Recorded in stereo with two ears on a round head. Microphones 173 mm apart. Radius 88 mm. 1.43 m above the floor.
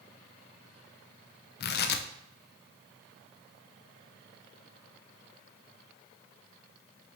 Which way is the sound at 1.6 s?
55° left (ahead or behind).